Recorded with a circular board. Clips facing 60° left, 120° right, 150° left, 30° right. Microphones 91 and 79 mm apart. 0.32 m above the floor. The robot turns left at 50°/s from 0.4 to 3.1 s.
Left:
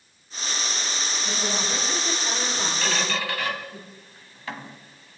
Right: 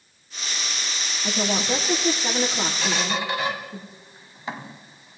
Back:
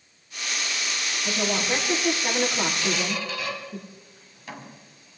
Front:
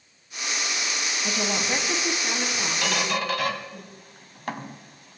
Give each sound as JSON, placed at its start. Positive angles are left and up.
{"t": 1.2, "sound": "a woman speaking", "azimuth_deg": -90, "distance_m": 6.5}
{"t": 2.8, "sound": "a squeak", "azimuth_deg": -35, "distance_m": 1.4}